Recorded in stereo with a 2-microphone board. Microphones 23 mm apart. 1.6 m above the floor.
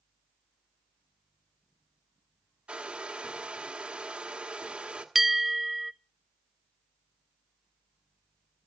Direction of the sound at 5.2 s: 5° right (ahead or behind).